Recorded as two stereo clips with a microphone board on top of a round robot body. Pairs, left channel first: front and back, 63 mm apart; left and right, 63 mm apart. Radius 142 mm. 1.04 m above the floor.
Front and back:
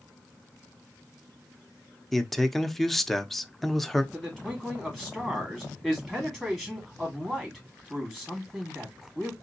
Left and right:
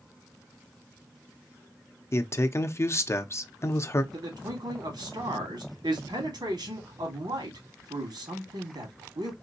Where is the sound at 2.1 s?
85° left, 0.8 m.